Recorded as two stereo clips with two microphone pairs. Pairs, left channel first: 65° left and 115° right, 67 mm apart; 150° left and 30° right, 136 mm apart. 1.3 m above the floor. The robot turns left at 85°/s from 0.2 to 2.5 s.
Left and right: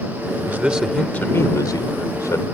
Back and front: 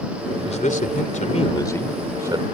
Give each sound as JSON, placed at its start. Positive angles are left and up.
{"t": 0.5, "sound": "a man speaking", "azimuth_deg": -175}